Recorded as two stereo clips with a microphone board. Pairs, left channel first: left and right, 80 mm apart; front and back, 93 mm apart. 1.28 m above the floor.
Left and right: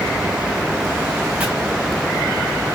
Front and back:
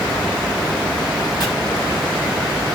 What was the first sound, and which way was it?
Chopping, 20° right.